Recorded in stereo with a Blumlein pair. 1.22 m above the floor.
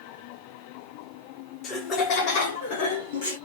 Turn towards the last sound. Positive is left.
turn(degrees=55)